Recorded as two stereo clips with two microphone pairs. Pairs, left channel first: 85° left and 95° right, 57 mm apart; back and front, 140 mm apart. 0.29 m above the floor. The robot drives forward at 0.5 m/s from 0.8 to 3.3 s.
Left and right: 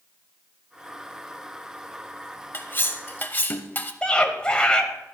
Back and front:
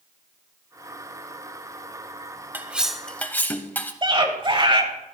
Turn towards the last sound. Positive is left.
turn(degrees=20)